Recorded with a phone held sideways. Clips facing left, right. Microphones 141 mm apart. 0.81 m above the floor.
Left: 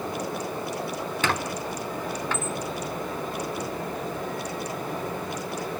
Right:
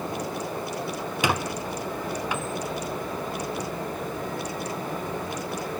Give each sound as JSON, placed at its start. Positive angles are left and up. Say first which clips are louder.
{"t": 1.2, "sound": "a squeak", "louder": "right 2 dB", "side_deg": -15, "distance_m": 0.6}